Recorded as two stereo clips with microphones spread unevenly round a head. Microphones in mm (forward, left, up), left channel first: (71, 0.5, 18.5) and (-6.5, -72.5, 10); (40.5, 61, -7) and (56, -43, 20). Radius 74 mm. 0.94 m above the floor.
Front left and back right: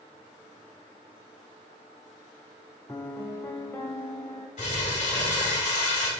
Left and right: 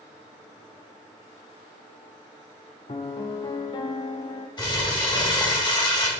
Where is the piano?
80° left, 0.6 m.